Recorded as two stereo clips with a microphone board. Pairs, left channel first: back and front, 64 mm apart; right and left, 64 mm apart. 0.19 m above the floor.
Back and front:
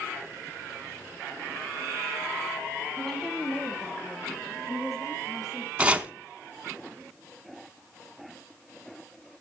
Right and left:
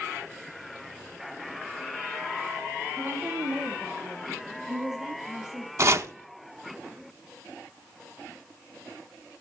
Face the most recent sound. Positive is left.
turn(degrees=65)